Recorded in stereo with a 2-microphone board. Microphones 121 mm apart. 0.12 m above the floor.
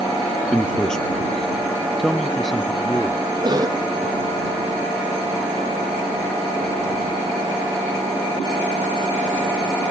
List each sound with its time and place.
0.5 s a man speaking: 5° left (ahead or behind); by 3.2 s centre (ahead or behind)
3.4 s a cough: 35° right (ahead or behind)